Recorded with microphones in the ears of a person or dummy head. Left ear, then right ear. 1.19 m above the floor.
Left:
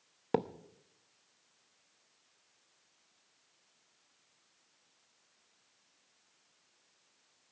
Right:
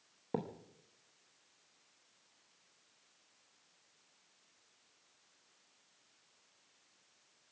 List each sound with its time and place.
0.3 s a thud: 45° left (ahead or behind), 0.6 m